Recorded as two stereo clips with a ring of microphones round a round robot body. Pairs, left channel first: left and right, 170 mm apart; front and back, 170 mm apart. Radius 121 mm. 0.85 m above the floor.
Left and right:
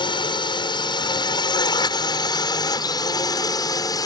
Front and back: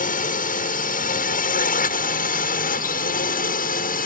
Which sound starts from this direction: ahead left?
A drone, at 0.0 s.